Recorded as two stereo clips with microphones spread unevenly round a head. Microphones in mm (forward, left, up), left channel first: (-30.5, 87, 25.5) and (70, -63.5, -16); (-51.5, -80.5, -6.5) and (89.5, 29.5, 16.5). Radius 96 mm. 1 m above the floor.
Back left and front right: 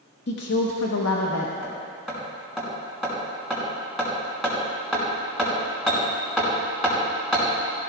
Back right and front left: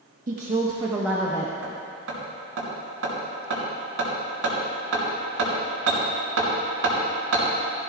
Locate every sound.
0.3 s a woman speaking: 90° left, 1.3 m; by 1.5 s 145° left, 1.2 m
1.6 s hammering: 35° left, 5 m